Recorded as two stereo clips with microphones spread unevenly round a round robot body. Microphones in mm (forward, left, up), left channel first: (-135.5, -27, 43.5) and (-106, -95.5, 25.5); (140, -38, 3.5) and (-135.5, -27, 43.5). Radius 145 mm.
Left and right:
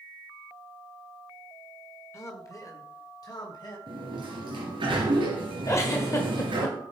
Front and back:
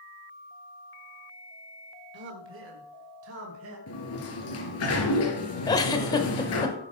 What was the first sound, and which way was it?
A man speaking, 165° left.